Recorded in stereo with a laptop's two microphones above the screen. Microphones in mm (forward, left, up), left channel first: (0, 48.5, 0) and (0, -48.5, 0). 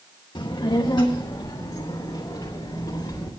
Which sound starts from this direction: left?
A child speaking, at 0.3 s.